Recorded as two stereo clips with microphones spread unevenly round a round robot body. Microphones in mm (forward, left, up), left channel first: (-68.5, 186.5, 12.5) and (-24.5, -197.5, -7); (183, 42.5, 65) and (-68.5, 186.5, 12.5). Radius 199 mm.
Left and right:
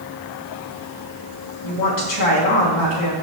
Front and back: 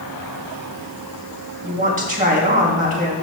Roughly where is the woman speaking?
Left.